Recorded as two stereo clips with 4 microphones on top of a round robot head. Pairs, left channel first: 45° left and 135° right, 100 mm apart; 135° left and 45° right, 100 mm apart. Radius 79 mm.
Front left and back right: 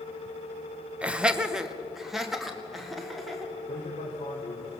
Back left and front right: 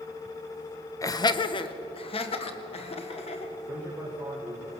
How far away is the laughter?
About 1.0 m.